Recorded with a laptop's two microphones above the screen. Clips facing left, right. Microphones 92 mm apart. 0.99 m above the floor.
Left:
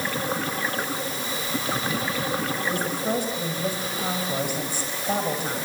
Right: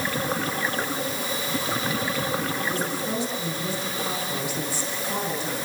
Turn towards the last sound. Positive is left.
turn(degrees=55)  # may be behind; listen again after turning